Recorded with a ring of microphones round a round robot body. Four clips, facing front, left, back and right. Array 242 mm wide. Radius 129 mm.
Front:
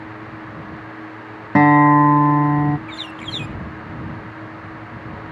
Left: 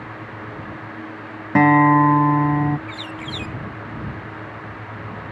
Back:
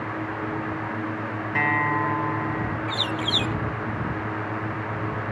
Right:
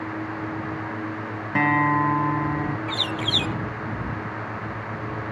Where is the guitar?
30° left.